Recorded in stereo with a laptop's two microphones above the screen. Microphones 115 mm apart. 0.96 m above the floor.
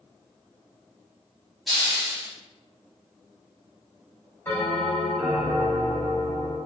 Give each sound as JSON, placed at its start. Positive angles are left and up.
{"t": 1.7, "sound": "a hiss", "side_deg": 0, "distance_m": 1.5}
{"t": 4.5, "sound": "a bell", "side_deg": 20, "distance_m": 1.2}